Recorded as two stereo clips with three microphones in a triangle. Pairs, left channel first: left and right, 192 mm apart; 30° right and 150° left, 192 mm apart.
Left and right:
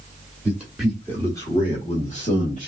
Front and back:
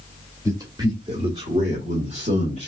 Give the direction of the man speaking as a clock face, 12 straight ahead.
5 o'clock.